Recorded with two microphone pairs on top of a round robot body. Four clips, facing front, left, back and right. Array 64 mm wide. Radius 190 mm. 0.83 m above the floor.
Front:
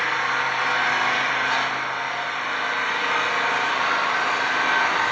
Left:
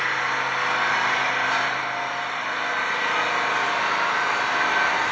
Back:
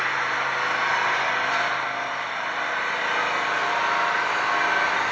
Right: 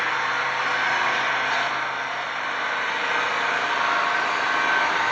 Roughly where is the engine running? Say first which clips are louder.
Even, front 2 dB; ahead.